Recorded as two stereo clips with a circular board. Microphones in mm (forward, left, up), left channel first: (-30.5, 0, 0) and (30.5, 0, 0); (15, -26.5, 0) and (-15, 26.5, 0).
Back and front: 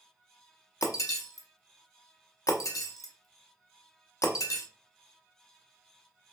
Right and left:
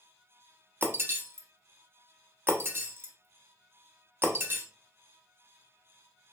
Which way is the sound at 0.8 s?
165° left.